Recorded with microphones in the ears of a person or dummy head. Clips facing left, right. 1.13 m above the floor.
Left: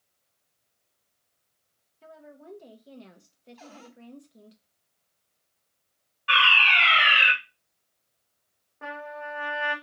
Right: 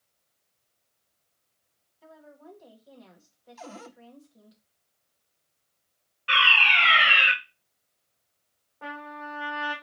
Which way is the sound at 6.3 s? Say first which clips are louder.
Left 1 dB; centre (ahead or behind).